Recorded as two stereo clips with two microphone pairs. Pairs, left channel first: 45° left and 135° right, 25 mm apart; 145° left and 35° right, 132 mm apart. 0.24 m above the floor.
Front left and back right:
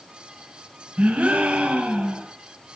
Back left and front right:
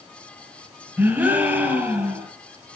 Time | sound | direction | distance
1.0 | a gasp | 115° right | 4 m